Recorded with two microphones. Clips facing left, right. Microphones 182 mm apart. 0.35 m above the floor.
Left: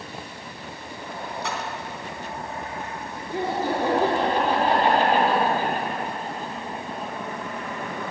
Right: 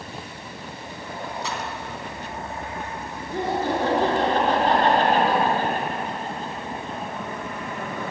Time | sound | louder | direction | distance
1.4 | a splash | left 2 dB | 65° left (ahead or behind) | 3 m
3.3 | laughter | right 1 dB | 10° left (ahead or behind) | 6 m